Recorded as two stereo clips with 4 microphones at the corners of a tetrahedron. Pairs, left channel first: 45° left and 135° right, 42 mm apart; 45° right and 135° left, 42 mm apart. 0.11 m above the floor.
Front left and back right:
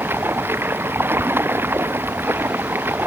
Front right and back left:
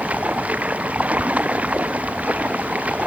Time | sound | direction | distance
0.0 | running water | 165° right | ?